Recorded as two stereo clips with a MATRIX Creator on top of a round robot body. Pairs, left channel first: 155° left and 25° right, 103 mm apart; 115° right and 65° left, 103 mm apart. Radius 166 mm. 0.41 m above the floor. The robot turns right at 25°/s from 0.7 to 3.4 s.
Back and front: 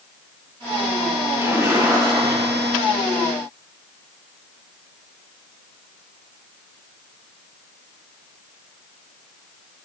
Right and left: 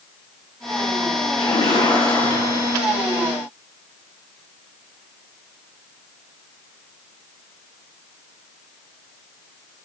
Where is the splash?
90° right, 7 m; by 2.8 s 55° right, 7 m.